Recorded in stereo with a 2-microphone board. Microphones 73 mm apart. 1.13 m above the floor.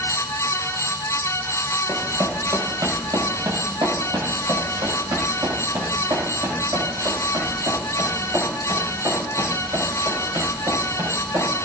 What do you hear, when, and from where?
1.9 s running footsteps: 45° right (ahead or behind), 1.8 m; by 11.7 s 65° right (ahead or behind), 7 m